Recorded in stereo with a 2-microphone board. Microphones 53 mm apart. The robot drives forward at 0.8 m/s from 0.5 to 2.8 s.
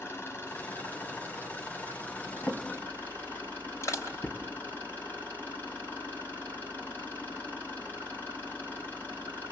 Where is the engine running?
45° left (ahead or behind), 5 m; by 9.5 s 35° left (ahead or behind), 6.5 m.